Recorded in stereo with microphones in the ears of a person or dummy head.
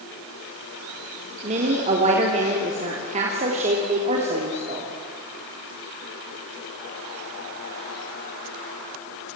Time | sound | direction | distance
1.4 | a woman speaking | 35° right (ahead or behind) | 3 m